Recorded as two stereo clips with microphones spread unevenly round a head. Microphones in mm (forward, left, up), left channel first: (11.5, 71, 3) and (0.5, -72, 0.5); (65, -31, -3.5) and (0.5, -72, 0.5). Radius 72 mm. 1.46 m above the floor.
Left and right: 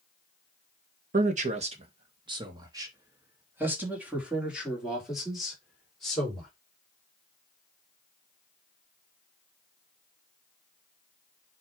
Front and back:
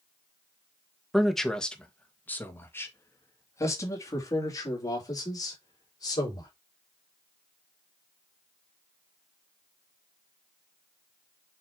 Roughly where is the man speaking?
Ahead right.